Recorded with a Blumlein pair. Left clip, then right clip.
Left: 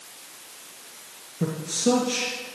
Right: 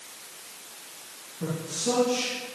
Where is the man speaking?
65° left, 2 m.